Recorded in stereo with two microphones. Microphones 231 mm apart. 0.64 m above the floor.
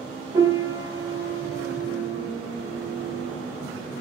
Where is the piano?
15° right (ahead or behind), 2 m.